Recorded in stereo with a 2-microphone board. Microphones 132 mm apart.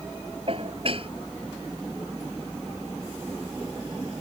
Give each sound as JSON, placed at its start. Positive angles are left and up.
{"t": 0.5, "sound": "dishes clattering", "side_deg": -45}